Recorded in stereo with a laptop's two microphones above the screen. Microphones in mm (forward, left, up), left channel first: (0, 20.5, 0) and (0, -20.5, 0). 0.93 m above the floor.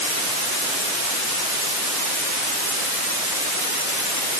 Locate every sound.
Only background noise.